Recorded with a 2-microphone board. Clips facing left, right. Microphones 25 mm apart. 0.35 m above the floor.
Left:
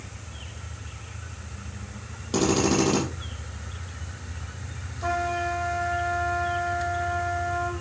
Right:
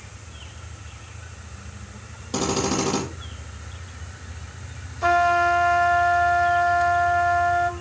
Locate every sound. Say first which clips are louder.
2.3 s a drill: left 2 dB; 5° left (ahead or behind), 7 m
5.0 s a trumpet: right 9 dB; 40° right (ahead or behind), 0.9 m